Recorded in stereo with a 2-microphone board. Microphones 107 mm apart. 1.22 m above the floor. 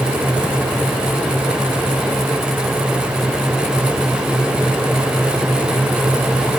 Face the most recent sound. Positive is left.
No sound to turn to.